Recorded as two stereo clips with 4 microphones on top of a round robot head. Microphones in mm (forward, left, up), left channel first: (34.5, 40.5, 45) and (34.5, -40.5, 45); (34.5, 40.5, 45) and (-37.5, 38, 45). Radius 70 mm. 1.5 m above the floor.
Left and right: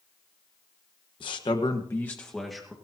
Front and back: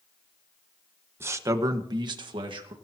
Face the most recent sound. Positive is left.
turn(degrees=-175)